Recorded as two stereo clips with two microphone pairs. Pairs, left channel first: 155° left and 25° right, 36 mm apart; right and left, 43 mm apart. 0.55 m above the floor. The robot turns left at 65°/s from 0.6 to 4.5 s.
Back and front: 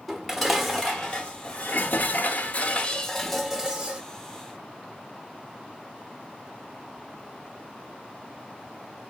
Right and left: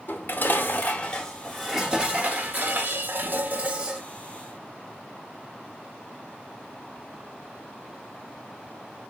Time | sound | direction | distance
0.1 | dishes clattering | 120° right | 0.7 m